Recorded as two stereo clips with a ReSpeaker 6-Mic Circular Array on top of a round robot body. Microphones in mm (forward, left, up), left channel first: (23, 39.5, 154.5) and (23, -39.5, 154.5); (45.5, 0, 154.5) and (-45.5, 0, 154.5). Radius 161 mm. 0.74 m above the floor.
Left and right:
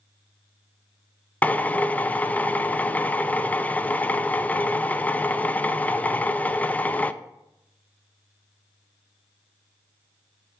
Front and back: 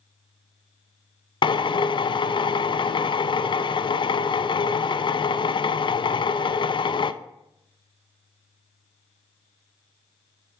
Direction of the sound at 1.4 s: 20° left.